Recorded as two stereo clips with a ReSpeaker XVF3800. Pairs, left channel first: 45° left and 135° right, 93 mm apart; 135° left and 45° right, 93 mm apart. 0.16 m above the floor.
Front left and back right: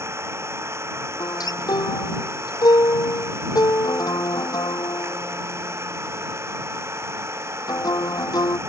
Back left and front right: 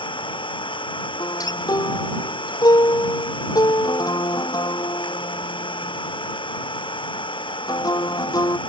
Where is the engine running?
165° left.